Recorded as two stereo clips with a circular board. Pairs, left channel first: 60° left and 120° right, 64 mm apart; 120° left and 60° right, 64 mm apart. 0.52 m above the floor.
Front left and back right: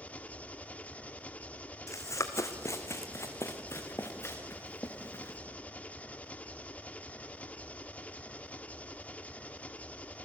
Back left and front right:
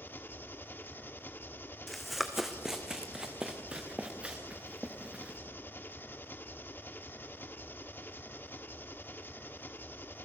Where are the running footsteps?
30° left, 1.5 m; by 5.4 s 10° left, 3 m.